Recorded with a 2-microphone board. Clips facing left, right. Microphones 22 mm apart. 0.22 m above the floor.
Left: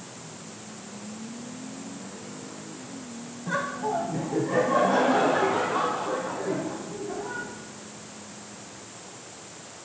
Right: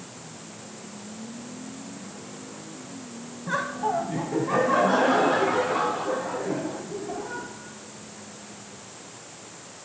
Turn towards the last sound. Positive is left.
turn(degrees=-80)